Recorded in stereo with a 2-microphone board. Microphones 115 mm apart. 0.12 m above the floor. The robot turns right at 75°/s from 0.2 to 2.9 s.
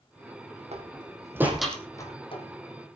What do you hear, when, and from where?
0.7 s a door slam: 65° right (ahead or behind), 3.5 m; by 2.4 s 60° left (ahead or behind), 3.5 m